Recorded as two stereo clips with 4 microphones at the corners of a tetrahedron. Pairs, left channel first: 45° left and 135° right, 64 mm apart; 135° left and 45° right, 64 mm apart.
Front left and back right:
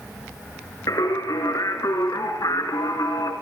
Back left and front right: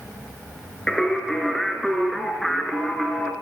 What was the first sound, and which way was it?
Singing, 50° left.